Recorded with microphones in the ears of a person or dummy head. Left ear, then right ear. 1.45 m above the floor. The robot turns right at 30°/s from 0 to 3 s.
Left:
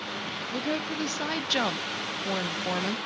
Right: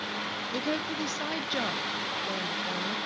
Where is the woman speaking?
15° right, 0.6 m; by 3.0 s 60° left, 0.6 m.